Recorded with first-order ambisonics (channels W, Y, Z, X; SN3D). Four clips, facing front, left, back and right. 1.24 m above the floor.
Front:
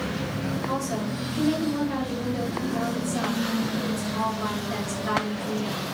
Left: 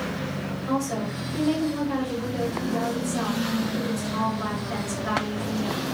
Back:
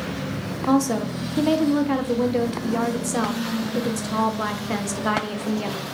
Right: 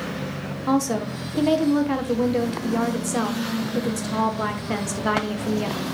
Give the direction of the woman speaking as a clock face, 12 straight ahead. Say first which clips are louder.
Right 5 dB, back 12 dB; 5 o'clock.